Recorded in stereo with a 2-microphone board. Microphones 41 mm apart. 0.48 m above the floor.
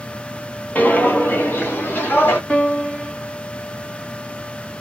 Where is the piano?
35° left (ahead or behind), 1.4 m.